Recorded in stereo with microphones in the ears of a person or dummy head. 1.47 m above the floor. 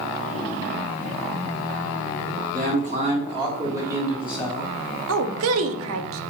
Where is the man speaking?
50° right (ahead or behind), 1.3 m; by 4.7 s centre (ahead or behind), 1.3 m.